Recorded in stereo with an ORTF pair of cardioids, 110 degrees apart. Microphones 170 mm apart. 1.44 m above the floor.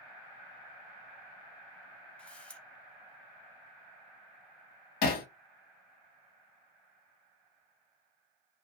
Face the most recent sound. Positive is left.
turn(degrees=65)